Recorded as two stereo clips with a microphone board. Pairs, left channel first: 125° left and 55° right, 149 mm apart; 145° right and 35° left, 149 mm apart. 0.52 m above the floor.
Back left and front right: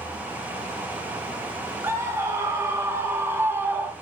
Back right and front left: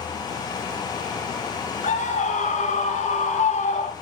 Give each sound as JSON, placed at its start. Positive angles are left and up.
{"t": 1.8, "sound": "a scream", "azimuth_deg": -125, "distance_m": 3.5}